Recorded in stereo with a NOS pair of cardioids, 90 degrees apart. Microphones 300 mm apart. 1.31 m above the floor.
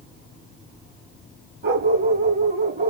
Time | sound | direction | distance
1.6 | a dog barking | 35° right | 3 m